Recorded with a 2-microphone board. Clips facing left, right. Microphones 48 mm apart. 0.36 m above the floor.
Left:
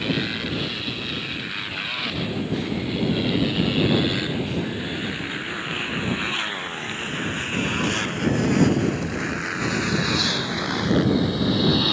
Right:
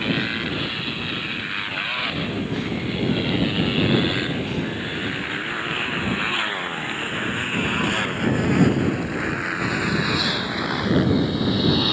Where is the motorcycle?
15° right (ahead or behind); by 11.9 s centre (ahead or behind).